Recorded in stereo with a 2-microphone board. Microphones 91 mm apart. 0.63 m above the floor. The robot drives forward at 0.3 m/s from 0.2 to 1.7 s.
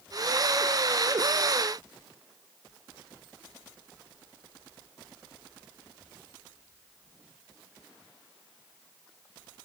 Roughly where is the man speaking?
No man speaking in this recording.